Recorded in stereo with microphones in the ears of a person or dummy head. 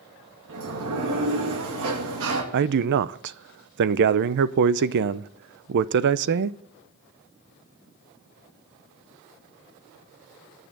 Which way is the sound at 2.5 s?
60° right (ahead or behind).